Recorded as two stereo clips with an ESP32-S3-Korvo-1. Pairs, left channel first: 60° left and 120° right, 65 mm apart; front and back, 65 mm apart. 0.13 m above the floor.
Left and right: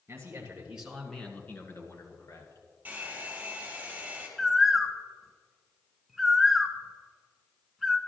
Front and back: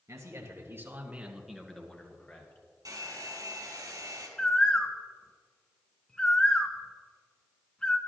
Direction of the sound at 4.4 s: 35° right.